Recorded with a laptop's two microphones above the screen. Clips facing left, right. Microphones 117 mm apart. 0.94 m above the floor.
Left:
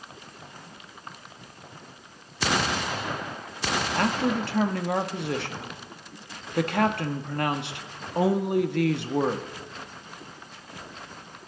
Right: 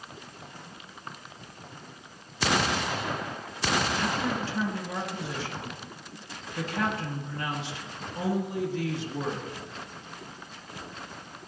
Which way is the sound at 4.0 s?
65° left (ahead or behind).